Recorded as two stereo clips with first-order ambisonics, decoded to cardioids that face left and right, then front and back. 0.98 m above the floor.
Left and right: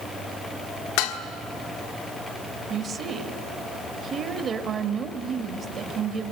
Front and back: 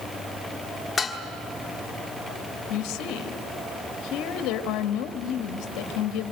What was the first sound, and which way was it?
Dishes clattering, 75° left.